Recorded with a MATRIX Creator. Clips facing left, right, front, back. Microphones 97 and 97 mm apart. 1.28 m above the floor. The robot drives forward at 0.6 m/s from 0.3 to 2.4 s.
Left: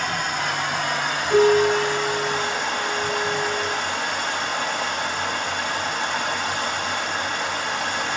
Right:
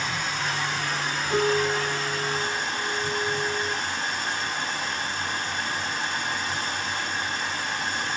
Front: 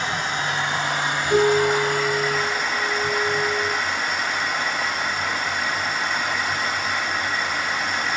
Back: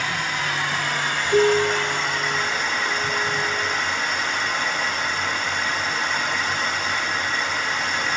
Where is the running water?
60° left, 3 m; by 8.2 s 85° left, 3 m.